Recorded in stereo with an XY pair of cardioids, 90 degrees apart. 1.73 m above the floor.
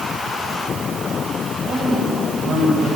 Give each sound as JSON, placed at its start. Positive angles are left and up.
{"t": 1.6, "sound": "a woman speaking", "azimuth_deg": -55, "distance_m": 10.0}